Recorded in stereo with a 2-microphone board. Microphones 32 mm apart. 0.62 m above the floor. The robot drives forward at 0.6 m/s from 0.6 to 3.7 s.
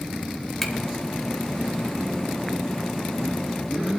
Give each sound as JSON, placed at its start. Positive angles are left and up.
{"t": 0.6, "sound": "a finger snap", "side_deg": 10, "distance_m": 2.0}